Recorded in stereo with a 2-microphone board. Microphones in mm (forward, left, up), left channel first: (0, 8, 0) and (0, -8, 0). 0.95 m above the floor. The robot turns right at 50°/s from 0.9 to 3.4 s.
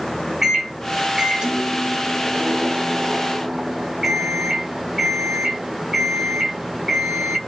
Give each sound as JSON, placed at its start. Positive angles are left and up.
{"t": 0.4, "sound": "a microwave", "azimuth_deg": -155, "distance_m": 1.0}